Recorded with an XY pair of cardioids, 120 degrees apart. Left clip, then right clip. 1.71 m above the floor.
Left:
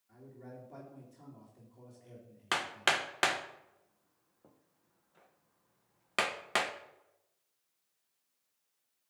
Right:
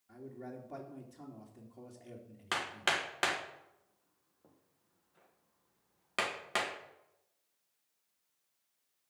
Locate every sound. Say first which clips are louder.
0.1 s a man speaking: right 4 dB; 45° right, 3 m
2.5 s hammering: left 2 dB; 20° left, 1.4 m